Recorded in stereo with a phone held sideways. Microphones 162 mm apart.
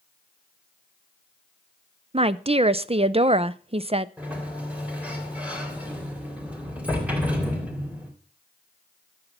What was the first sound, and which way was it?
A woman speaking, 40° right (ahead or behind).